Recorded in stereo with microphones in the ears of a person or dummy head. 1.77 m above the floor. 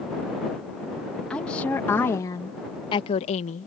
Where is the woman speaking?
10° left (ahead or behind); by 3.7 s 50° left (ahead or behind).